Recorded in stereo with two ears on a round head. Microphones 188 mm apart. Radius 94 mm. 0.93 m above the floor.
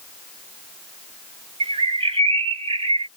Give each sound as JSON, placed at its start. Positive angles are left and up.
{"t": 1.6, "sound": "a bird", "side_deg": -25}